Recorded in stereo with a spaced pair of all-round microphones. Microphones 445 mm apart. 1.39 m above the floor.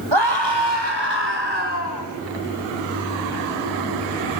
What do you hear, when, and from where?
0.1 s a scream: 70° right (ahead or behind), 7 m; by 2.0 s 60° right (ahead or behind), 8.5 m